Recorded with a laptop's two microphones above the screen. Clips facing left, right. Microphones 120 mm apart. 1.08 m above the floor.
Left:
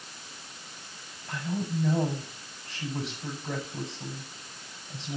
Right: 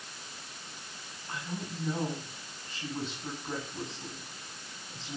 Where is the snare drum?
I don't hear a snare drum.